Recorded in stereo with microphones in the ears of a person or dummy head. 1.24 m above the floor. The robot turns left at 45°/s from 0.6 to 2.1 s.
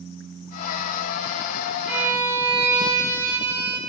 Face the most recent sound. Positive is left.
turn(degrees=-15)  # may be behind; listen again after turning